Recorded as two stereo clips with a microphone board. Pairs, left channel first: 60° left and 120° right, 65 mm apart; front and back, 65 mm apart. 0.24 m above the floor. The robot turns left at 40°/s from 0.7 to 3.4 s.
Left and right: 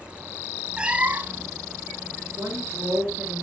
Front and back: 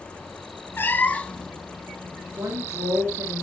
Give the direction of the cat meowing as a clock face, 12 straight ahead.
2 o'clock.